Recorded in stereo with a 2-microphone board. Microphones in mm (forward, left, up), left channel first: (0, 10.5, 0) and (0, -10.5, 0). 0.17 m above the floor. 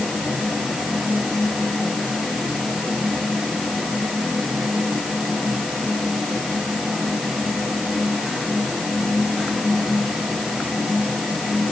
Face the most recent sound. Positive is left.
No sound to turn to.